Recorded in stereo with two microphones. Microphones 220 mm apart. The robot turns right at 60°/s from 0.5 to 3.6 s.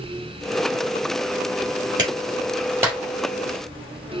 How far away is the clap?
About 3.5 m.